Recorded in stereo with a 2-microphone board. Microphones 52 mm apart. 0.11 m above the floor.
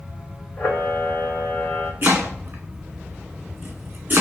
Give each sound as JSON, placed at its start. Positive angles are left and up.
{"t": 0.6, "sound": "a camera shutter", "side_deg": 25, "distance_m": 1.4}
{"t": 2.0, "sound": "chopping", "side_deg": -40, "distance_m": 1.8}